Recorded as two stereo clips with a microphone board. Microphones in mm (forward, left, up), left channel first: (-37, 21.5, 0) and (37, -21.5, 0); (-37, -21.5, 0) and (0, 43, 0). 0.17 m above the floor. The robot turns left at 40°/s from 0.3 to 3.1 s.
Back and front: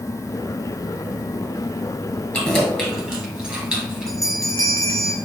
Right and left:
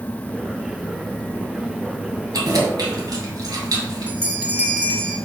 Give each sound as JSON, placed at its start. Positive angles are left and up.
{"t": 2.3, "sound": "keys jangling", "azimuth_deg": 75, "distance_m": 1.7}
{"t": 4.1, "sound": "a bell", "azimuth_deg": 120, "distance_m": 0.9}